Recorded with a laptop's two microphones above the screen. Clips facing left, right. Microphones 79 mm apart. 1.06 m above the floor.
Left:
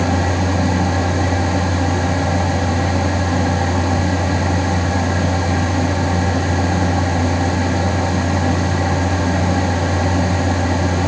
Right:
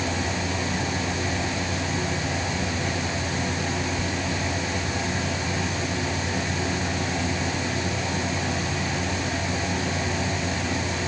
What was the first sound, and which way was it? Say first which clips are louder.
A fan: left 9 dB; 70° left (ahead or behind).